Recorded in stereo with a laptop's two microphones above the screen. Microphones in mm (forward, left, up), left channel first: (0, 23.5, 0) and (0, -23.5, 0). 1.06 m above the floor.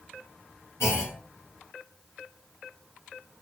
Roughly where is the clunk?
Left.